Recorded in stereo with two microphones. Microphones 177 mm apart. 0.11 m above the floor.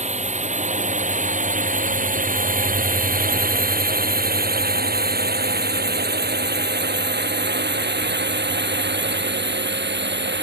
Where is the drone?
40° right (ahead or behind); by 10.4 s 80° right.